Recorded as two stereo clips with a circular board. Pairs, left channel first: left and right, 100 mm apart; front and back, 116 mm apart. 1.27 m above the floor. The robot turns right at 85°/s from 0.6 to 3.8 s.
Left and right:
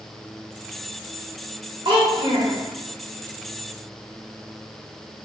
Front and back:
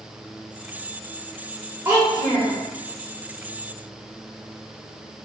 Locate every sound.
1.9 s a child speaking: 115° right, 0.7 m; by 2.6 s 55° right, 0.7 m